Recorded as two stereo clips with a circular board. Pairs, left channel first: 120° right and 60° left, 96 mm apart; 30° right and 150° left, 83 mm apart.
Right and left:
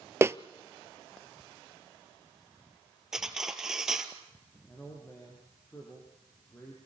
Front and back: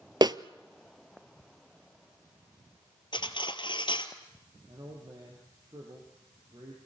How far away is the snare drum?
About 0.7 m.